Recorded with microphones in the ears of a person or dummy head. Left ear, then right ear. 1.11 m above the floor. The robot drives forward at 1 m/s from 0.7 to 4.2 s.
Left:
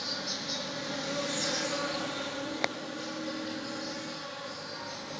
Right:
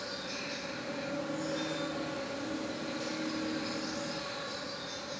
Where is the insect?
30° left (ahead or behind), 1.1 m; by 5.2 s 15° left (ahead or behind), 2.5 m.